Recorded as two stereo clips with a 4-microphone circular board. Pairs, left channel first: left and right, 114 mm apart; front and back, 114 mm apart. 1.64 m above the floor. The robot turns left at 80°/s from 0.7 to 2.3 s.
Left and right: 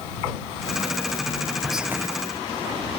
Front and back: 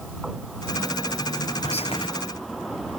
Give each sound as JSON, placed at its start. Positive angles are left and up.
{"t": 1.6, "sound": "whispering", "azimuth_deg": 5}